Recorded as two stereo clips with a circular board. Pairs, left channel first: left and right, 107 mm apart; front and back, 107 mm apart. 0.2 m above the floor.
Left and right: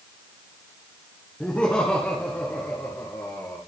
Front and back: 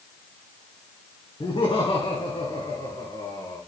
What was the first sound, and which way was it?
Laughter, 10° left.